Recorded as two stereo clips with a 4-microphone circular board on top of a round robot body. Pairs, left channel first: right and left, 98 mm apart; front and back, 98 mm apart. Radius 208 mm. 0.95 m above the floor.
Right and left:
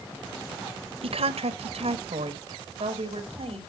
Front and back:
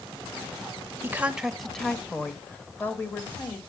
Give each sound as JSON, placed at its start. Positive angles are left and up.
{"t": 1.0, "sound": "a woman speaking", "azimuth_deg": 110, "distance_m": 0.9}